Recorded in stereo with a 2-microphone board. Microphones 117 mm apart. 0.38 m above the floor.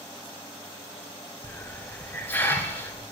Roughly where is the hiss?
Centre.